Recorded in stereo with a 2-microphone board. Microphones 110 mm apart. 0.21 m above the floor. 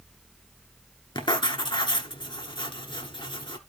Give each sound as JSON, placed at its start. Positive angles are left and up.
{"t": 1.1, "sound": "writing", "side_deg": 45, "distance_m": 1.1}